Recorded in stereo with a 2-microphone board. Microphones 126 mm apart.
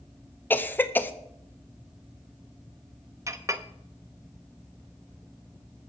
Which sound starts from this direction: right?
A clink, at 3.3 s.